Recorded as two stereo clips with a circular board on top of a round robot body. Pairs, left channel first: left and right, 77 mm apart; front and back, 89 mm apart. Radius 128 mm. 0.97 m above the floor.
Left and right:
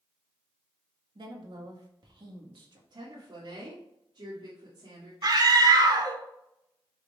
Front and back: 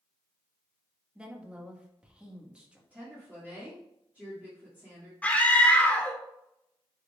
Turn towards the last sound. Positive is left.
turn(degrees=-70)